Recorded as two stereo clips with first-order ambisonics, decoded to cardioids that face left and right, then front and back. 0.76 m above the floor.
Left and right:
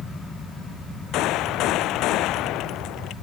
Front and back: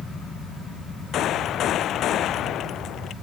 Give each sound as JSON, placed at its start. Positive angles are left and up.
{"t": 1.1, "sound": "a gunshot", "azimuth_deg": 50}